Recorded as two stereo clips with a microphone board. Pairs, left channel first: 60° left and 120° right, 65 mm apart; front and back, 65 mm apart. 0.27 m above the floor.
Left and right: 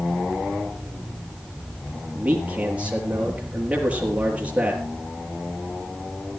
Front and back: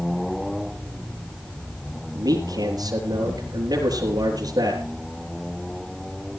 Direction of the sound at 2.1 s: 170° left.